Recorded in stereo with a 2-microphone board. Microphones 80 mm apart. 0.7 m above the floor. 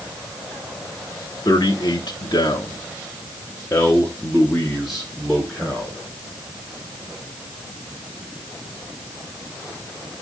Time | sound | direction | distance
1.4 | a man speaking | 55° left (ahead or behind) | 1.6 m